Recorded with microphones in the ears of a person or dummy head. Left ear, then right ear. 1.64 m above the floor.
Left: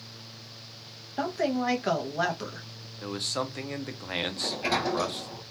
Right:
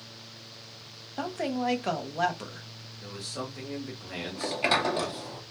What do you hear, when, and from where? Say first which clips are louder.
1.2 s a woman speaking: left 3 dB; centre (ahead or behind), 0.6 m
3.0 s a man speaking: left 6 dB; 35° left (ahead or behind), 0.6 m
4.3 s a sliding door: right 5 dB; 40° right (ahead or behind), 0.6 m